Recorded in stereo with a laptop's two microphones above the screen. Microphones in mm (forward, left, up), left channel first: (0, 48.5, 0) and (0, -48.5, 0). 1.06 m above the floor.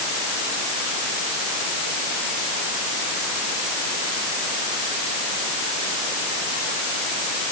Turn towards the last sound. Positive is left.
No sound to turn to.